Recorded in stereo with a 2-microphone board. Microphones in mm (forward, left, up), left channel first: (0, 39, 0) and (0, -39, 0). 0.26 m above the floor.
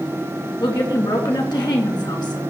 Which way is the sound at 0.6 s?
65° left (ahead or behind).